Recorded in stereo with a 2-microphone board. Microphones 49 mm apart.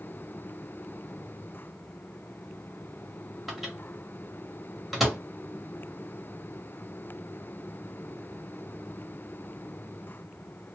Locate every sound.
3.5 s a microwave: 5° right (ahead or behind), 1.2 m